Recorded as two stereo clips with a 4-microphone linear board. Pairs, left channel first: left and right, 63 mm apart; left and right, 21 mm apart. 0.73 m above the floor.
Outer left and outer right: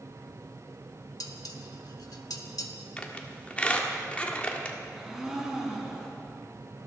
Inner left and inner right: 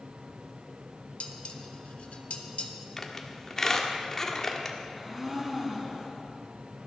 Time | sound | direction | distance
1.2 | dishes clattering | 80° left | 1.2 m
3.0 | a squeak | 20° left (ahead or behind) | 1.3 m
5.0 | a blender | 10° right (ahead or behind) | 4.5 m